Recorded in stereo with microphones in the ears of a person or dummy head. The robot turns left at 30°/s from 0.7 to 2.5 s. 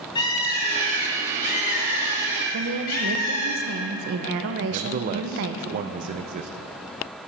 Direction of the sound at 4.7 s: 45° right (ahead or behind).